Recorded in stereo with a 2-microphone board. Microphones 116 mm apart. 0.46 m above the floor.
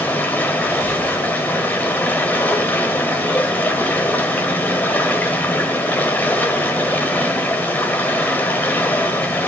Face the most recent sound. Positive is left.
turn(degrees=15)  # may be behind; listen again after turning